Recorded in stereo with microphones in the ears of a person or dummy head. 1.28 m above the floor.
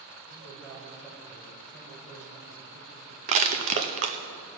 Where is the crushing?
35° right (ahead or behind), 0.6 m.